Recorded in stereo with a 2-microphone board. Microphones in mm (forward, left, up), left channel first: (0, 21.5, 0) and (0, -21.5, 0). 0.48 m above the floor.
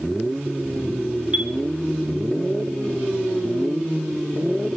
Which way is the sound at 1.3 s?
35° right (ahead or behind).